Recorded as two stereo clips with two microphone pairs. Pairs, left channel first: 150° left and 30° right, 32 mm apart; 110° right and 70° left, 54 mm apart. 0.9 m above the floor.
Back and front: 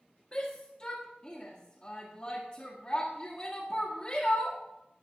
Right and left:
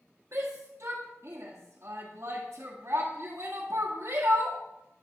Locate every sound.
0.3 s a shout: 95° left, 1.9 m